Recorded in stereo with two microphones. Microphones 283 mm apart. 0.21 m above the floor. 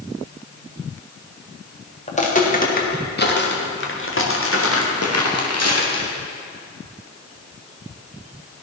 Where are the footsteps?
25° left (ahead or behind), 3.5 m; by 6.1 s 65° left (ahead or behind), 4 m.